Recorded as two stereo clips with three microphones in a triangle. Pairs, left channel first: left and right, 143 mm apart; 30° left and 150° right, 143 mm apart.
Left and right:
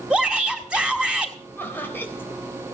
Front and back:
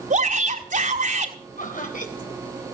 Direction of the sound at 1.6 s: 15° left.